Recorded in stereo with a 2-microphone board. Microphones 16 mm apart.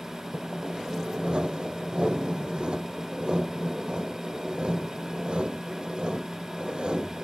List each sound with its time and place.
0.3 s sawing: 65° right (ahead or behind)